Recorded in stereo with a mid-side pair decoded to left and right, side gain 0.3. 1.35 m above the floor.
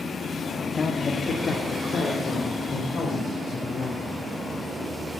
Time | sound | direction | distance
0.7 | a man speaking | 45° left | 1.9 m